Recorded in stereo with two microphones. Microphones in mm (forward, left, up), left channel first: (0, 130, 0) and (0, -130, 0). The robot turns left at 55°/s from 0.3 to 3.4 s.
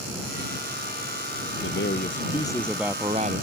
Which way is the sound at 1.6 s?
60° left.